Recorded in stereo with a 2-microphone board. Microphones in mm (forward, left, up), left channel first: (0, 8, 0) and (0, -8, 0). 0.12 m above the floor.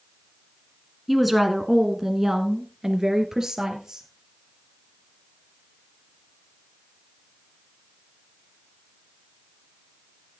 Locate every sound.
1.1 s a woman speaking: centre (ahead or behind), 1.3 m; by 4.1 s 35° right (ahead or behind), 2.5 m